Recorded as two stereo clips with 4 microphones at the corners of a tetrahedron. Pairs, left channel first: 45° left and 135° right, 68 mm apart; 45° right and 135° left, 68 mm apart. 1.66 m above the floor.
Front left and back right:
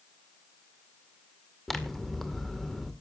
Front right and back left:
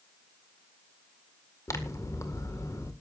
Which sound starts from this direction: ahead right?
Scissors, at 1.7 s.